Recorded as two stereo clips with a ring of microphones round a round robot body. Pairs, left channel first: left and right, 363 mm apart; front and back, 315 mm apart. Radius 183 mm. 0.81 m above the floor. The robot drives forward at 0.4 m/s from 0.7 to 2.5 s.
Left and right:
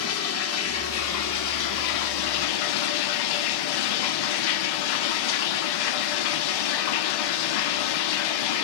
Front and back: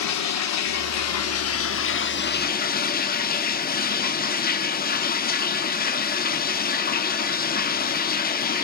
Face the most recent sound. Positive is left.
turn(degrees=65)